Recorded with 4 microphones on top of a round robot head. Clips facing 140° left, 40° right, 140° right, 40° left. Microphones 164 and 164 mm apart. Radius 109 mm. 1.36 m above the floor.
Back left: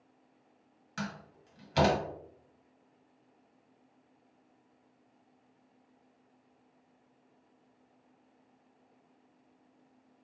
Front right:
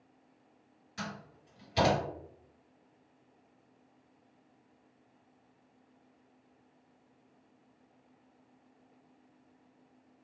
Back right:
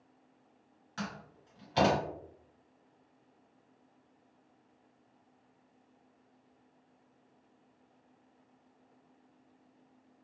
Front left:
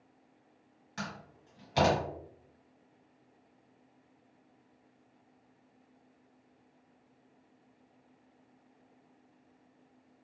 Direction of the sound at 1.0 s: 115° left.